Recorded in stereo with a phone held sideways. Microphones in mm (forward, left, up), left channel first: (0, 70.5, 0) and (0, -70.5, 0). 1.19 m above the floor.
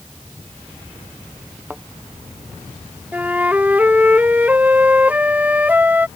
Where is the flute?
10° right (ahead or behind).